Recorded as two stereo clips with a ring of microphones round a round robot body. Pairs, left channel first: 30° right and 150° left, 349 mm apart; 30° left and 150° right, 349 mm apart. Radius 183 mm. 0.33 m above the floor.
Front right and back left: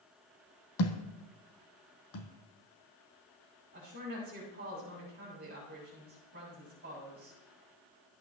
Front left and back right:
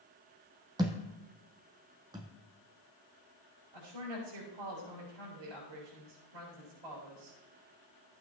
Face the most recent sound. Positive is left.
turn(degrees=-150)